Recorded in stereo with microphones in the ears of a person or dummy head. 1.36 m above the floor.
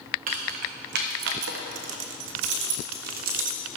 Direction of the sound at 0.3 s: 40° right (ahead or behind).